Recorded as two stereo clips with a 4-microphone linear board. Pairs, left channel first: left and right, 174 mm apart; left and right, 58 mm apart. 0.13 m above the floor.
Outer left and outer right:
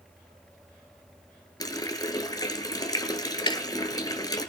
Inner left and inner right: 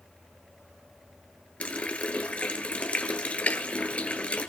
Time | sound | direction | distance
1.6 | a running tap | 20° left (ahead or behind) | 1.2 m
3.5 | ticking | 30° left (ahead or behind) | 0.5 m